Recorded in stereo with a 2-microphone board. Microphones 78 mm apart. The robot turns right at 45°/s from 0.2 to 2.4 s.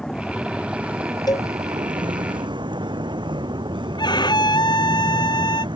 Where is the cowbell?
60° left (ahead or behind); by 1.5 s 50° left (ahead or behind).